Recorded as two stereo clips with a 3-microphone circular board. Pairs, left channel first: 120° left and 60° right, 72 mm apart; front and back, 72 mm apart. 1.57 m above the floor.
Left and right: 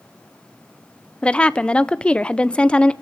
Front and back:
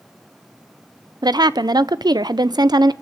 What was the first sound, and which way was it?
A woman speaking, 165° right.